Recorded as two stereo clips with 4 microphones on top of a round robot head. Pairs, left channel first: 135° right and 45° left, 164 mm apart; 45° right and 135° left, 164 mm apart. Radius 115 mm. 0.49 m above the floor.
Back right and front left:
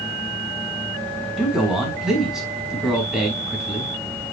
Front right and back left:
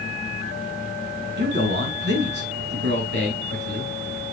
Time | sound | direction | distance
1.4 | a man speaking | 130° left | 5.5 m